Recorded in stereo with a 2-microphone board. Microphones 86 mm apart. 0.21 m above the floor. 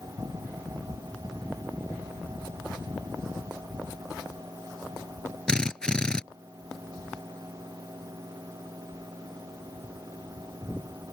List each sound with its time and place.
5.5 s a drill: 10° left (ahead or behind)